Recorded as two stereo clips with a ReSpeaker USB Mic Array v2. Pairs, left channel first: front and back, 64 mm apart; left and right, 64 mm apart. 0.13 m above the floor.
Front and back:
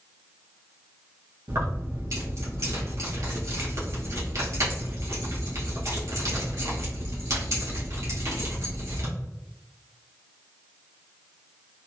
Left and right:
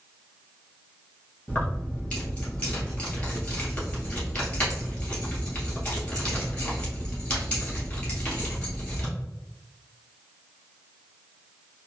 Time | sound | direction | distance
1.5 | keys jangling | 160° left | 1.8 m